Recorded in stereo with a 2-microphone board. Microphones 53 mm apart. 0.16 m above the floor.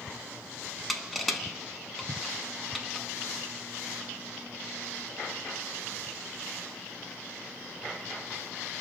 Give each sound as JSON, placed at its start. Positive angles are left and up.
{"t": 0.9, "sound": "crushing", "side_deg": 0, "distance_m": 0.5}